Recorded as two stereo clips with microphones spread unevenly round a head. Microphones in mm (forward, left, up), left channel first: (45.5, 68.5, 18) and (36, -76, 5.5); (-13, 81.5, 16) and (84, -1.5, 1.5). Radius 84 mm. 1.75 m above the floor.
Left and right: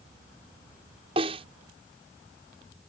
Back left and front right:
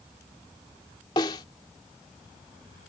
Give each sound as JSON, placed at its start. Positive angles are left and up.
{"t": 1.2, "sound": "a snare drum", "azimuth_deg": -155}